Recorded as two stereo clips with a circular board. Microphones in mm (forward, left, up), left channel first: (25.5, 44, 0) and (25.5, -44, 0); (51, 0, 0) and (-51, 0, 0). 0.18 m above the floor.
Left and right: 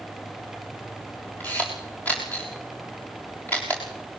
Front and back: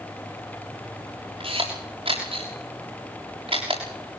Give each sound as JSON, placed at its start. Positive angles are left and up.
{"t": 1.4, "sound": "a camera shutter", "azimuth_deg": 160, "distance_m": 6.5}